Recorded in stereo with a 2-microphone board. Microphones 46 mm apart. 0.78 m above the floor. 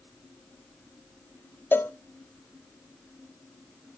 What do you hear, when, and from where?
1.7 s a cowbell: 45° left (ahead or behind), 0.5 m